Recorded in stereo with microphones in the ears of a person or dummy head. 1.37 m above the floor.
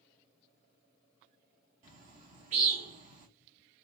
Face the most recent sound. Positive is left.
turn(degrees=-45)  # may be behind; listen again after turning